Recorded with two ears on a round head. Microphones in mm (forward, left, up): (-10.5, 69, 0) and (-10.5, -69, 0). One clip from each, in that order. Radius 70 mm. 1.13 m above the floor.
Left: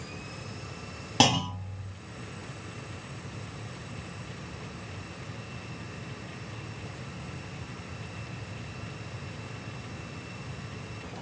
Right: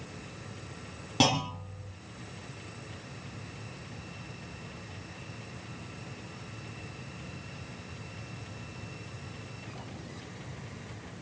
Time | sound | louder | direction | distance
1.2 | a clunk | left 3 dB | 25° left (ahead or behind) | 1.9 m